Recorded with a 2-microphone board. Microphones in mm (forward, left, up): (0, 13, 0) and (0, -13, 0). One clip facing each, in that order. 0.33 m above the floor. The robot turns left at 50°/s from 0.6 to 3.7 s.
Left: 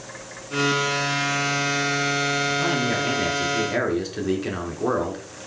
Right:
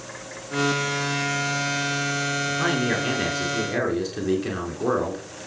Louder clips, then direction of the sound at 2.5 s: Left 1 dB; 130° right.